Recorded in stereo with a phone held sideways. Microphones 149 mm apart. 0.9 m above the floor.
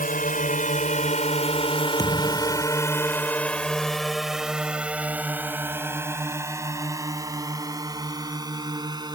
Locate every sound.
0.0 s a drone: 70° left (ahead or behind); by 9.2 s 30° right (ahead or behind)
2.0 s a thud: 25° left (ahead or behind)